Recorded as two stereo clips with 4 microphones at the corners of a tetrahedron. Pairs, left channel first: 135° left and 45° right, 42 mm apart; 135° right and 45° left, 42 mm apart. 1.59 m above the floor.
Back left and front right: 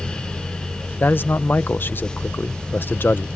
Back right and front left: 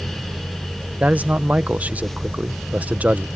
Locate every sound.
1.0 s a man speaking: 95° left